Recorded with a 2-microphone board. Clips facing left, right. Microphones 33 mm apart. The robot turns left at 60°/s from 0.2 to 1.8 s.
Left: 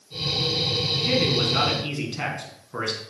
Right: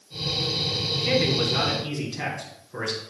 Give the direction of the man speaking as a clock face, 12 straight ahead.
6 o'clock.